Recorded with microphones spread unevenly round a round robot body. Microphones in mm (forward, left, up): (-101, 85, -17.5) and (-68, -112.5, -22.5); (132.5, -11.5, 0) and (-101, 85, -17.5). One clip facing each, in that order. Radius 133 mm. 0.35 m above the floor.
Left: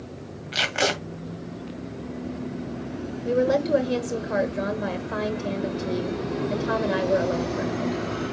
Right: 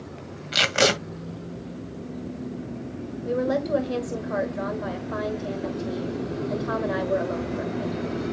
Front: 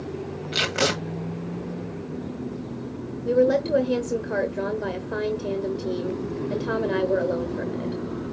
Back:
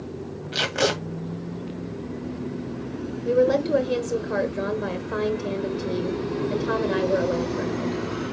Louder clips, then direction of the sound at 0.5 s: Right 4 dB, back 2 dB; 105° right.